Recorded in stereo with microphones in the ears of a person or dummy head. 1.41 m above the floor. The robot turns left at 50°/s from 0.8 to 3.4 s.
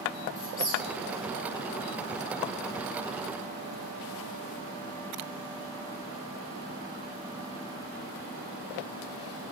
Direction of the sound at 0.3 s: 20° left (ahead or behind).